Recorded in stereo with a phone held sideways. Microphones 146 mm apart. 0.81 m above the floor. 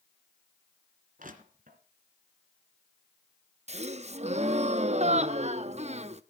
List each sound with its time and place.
1.2 s crushing: 70° right (ahead or behind), 2.5 m
3.7 s a gasp: 50° right (ahead or behind), 0.6 m